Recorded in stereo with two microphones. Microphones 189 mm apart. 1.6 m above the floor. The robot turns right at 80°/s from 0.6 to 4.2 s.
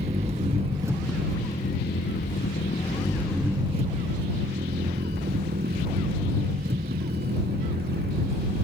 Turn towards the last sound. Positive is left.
turn(degrees=-110)